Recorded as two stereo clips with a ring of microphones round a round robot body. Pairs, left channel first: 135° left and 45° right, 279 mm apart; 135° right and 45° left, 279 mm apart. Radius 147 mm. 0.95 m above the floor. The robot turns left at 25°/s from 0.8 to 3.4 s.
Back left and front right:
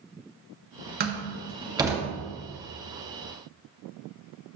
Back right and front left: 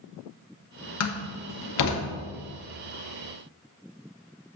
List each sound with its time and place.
1.0 s a door slam: 100° right, 1.5 m; by 2.0 s 130° right, 1.5 m